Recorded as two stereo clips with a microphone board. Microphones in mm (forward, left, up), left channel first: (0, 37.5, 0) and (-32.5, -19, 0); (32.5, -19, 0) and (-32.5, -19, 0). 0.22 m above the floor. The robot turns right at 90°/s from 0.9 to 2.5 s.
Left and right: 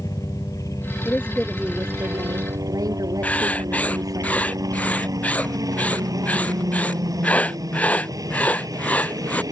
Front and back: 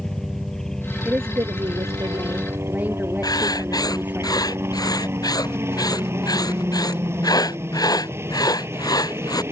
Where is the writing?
5° right.